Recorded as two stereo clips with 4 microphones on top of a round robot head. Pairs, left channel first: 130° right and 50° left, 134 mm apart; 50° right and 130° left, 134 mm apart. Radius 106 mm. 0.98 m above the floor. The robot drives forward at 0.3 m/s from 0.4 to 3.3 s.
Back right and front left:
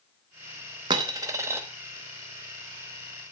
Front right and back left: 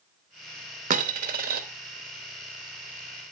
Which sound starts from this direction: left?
A dropped coin, at 0.9 s.